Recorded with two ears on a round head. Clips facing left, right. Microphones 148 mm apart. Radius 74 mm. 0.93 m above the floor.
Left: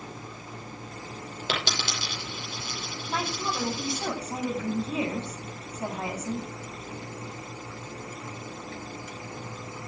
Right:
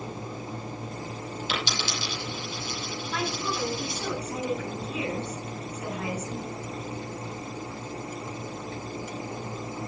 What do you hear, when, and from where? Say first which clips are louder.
1.5 s a dropped coin: left 2 dB; 45° left (ahead or behind), 9.5 m
3.1 s a woman speaking: left 1 dB; 25° left (ahead or behind), 7 m